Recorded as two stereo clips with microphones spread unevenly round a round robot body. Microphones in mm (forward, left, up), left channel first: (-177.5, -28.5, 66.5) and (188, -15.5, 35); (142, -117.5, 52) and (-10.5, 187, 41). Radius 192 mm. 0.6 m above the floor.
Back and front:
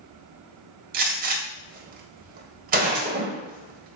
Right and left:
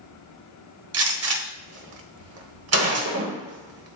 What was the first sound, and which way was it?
A gunshot, 70° left.